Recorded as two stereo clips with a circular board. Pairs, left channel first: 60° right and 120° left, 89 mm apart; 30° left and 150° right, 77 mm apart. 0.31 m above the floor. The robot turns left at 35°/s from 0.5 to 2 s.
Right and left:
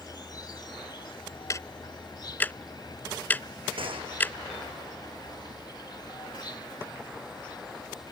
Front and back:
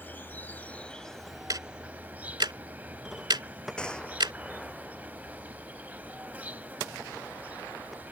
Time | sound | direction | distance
0.0 | an insect | 30° right | ?
1.5 | ticking | 110° right | ?
3.8 | a gunshot | 110° left | ?